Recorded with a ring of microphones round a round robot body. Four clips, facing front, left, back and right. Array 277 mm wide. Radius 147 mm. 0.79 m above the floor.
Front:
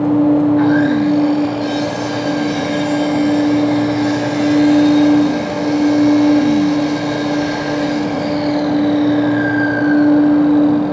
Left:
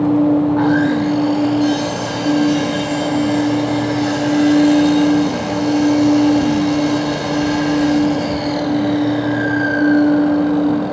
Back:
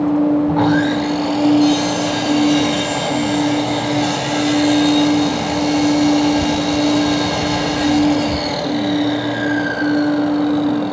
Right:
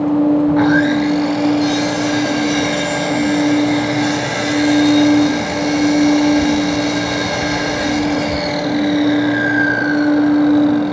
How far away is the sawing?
About 2 m.